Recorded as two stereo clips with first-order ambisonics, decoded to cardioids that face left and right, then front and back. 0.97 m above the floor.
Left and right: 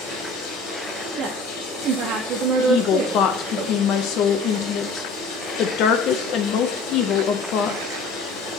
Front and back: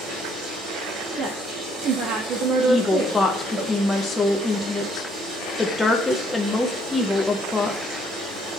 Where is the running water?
115° left, 3 m.